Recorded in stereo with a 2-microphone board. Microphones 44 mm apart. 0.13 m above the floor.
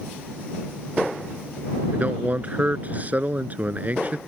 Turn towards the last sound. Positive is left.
turn(degrees=-40)  # may be behind; listen again after turning